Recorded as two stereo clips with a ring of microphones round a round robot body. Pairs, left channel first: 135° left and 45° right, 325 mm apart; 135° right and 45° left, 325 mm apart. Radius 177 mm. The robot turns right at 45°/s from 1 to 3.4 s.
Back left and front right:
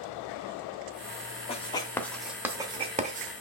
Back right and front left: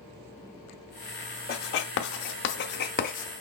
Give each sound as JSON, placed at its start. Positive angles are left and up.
{"t": 1.5, "sound": "writing", "azimuth_deg": -170, "distance_m": 0.6}